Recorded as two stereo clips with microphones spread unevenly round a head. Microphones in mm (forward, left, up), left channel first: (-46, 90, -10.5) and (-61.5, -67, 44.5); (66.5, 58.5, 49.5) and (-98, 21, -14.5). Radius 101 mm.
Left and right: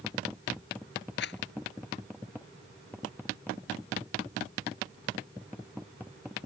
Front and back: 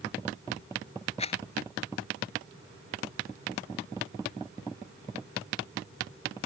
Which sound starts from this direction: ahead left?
A rattle, at 1.2 s.